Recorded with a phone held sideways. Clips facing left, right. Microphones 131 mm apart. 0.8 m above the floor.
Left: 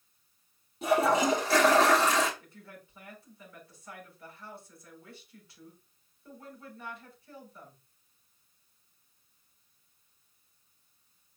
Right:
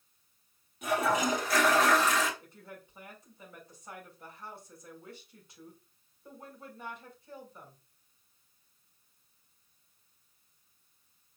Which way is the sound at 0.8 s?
30° left (ahead or behind).